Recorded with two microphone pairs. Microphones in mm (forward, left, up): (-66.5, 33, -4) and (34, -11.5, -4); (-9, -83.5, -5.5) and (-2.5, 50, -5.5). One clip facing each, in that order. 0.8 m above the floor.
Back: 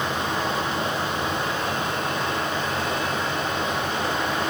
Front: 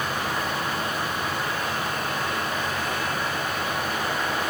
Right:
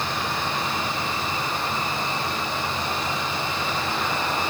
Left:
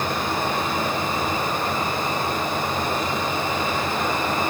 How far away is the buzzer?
I don't hear a buzzer.